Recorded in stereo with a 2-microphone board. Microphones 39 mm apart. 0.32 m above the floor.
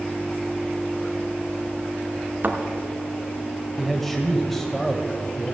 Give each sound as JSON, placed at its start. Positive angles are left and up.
{"t": 2.4, "sound": "a thud", "side_deg": -45, "distance_m": 1.4}
{"t": 3.8, "sound": "a man speaking", "side_deg": 5, "distance_m": 1.3}